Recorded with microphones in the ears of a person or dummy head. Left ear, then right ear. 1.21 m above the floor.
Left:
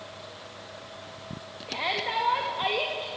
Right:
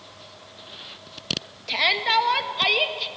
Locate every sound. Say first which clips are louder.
1.7 s a shout: right 8 dB; 70° right (ahead or behind), 2.0 m